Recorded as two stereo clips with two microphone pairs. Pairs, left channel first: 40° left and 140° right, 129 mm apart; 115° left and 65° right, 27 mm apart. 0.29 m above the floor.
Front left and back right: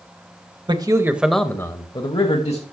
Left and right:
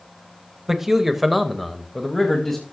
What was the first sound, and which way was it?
A man speaking, 135° right.